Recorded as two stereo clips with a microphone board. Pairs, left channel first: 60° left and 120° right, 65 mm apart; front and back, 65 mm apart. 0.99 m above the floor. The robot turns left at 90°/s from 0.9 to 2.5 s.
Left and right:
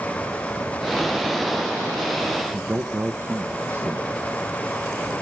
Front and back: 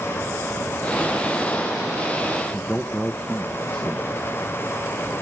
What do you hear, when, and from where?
2.5 s a man speaking: 75° right, 0.8 m